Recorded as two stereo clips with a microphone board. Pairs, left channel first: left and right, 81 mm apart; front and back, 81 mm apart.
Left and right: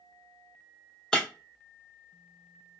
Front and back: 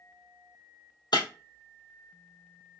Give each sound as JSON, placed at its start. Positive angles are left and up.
{"t": 1.1, "sound": "breaking glass", "azimuth_deg": 10, "distance_m": 0.7}